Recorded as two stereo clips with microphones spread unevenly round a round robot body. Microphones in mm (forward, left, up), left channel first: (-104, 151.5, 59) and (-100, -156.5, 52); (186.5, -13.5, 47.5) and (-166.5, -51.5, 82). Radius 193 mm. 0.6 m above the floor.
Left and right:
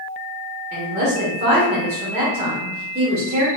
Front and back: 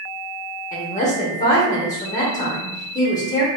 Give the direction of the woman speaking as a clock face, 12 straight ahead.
2 o'clock.